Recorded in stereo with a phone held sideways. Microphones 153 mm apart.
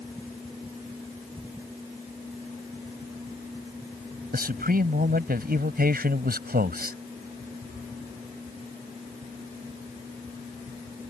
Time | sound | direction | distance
4.3 | a man speaking | 75° right (ahead or behind) | ?